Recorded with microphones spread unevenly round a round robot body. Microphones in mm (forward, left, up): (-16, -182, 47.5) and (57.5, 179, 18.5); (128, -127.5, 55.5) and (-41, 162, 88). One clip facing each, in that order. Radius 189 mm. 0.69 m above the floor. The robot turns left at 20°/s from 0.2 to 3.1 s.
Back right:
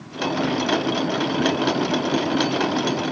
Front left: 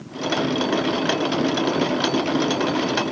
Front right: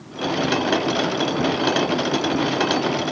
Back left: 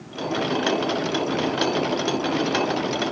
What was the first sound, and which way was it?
Only background noise.